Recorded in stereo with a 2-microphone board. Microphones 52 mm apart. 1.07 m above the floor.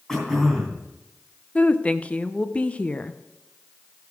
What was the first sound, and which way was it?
Throat clearing, 10° left (ahead or behind).